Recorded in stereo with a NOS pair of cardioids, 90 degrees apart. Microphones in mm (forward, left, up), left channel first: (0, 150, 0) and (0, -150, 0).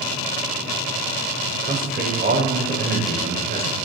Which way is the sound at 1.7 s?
30° right.